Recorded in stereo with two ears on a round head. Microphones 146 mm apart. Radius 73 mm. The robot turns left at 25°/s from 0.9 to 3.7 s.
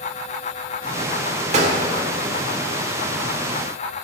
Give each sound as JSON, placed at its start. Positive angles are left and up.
{"t": 1.5, "sound": "a gunshot", "side_deg": -40, "distance_m": 1.5}